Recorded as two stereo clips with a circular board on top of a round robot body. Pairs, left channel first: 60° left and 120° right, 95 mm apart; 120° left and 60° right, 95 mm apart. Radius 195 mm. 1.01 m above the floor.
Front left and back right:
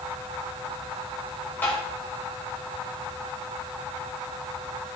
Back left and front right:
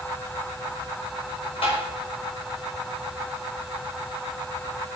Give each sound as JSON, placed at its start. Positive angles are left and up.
{"t": 1.6, "sound": "tapping", "azimuth_deg": 135, "distance_m": 6.0}